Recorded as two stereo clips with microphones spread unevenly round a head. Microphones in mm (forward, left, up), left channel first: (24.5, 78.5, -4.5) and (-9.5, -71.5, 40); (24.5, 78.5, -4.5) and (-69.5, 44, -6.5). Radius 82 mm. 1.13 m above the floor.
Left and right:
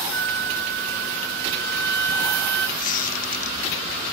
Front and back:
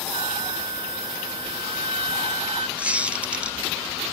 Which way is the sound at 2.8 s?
125° left.